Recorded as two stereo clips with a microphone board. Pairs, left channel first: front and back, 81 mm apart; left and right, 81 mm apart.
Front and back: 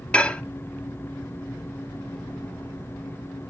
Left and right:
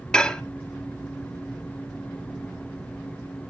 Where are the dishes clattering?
40° left, 0.6 m.